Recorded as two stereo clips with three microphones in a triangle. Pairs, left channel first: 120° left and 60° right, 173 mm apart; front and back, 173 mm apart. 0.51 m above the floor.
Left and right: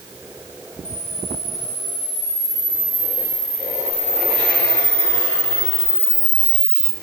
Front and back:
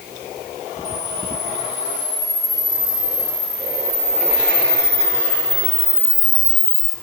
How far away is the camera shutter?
About 6 m.